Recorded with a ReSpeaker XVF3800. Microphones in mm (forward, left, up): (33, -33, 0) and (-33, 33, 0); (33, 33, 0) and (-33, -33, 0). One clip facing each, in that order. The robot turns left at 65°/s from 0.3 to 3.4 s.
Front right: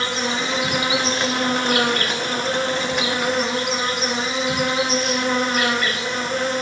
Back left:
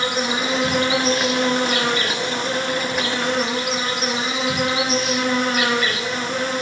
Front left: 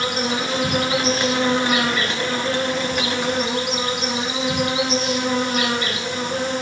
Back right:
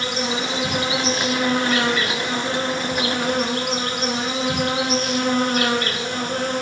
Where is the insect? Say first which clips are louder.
Back left 2 dB, front left 2 dB; 65° left, 2.5 m; by 6.6 s 135° right, 2.5 m.